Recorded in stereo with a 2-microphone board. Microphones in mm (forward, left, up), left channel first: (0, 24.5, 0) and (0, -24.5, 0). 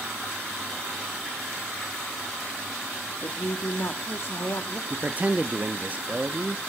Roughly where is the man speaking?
Right.